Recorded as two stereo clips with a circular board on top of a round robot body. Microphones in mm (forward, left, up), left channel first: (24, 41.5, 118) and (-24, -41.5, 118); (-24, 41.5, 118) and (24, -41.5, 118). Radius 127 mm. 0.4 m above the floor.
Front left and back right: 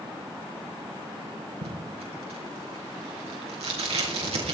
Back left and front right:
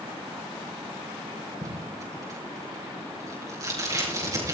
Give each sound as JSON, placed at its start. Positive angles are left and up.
{"t": 1.6, "sound": "tape being pulled", "azimuth_deg": -115, "distance_m": 5.0}